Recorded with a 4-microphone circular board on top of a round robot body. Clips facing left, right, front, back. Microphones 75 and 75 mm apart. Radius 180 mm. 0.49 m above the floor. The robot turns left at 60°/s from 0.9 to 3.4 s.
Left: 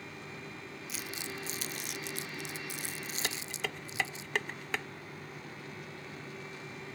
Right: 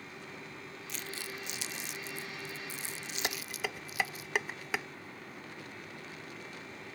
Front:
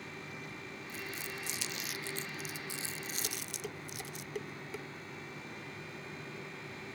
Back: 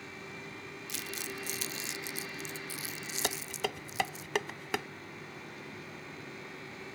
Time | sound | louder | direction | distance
0.9 | crumpling | left 1 dB, back 1 dB | 175° left | ?
3.2 | dishes clattering | right 2 dB, back 7 dB | 160° right | ?